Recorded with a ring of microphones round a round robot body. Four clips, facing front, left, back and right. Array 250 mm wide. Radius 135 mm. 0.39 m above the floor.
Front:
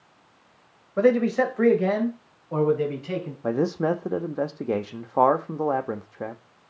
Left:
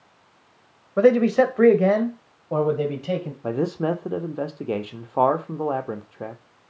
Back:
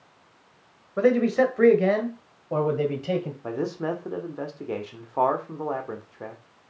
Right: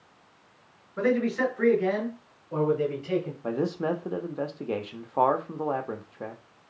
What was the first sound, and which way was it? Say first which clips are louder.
A man speaking: left 9 dB, even; 85° left.